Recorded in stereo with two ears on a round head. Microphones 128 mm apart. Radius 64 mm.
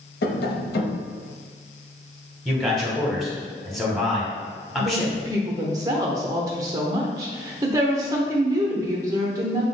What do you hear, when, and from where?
0.2 s tapping: 80° left, 0.6 m
2.5 s a man speaking: centre (ahead or behind), 1.3 m
4.8 s a woman speaking: 25° right (ahead or behind), 0.8 m